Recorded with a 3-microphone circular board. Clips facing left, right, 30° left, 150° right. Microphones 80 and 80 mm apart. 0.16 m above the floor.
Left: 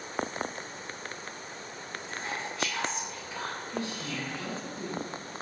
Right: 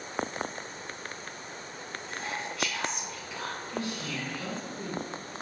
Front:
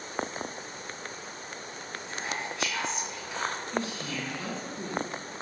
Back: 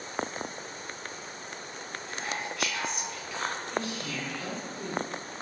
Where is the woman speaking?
35° left, 1.4 m.